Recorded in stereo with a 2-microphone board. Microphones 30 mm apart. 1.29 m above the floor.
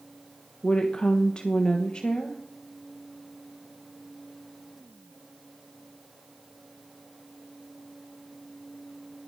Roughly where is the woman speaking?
Left.